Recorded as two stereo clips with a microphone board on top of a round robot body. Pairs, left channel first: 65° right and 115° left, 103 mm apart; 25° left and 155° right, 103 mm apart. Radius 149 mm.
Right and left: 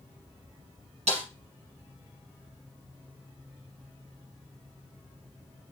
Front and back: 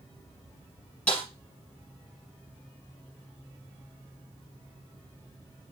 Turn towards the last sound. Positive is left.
turn(degrees=100)